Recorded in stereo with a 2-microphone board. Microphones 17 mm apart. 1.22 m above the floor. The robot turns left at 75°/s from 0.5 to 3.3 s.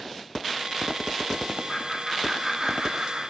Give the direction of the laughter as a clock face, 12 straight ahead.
11 o'clock.